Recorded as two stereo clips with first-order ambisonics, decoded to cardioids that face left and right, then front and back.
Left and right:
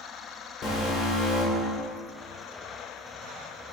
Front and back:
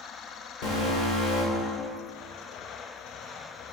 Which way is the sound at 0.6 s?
25° left.